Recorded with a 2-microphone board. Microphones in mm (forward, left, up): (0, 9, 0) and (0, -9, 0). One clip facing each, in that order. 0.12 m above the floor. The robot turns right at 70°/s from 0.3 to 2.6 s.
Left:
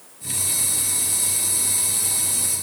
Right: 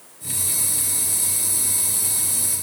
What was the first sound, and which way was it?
Only background noise.